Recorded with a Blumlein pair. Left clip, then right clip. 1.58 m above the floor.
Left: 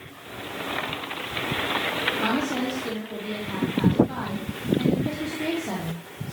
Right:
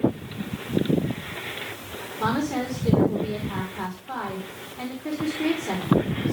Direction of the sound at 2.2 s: 5° right.